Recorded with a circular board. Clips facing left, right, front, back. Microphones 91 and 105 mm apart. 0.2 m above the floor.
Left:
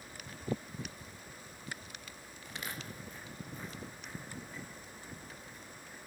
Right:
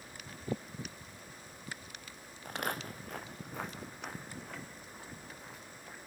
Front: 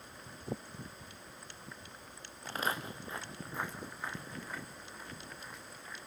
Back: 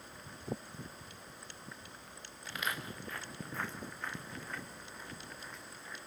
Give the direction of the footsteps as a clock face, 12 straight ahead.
2 o'clock.